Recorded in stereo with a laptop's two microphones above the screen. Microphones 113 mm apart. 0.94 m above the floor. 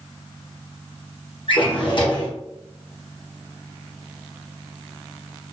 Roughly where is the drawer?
Left.